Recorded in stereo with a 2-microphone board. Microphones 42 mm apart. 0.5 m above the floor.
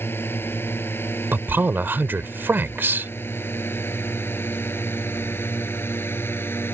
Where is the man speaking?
55° right (ahead or behind).